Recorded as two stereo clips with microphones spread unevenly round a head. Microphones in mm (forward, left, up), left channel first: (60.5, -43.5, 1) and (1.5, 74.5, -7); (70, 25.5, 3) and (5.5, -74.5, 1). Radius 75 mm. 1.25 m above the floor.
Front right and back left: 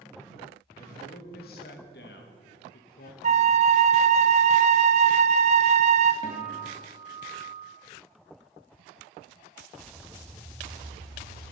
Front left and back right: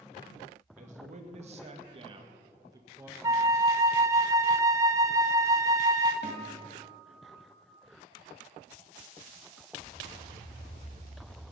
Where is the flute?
165° left, 0.5 m.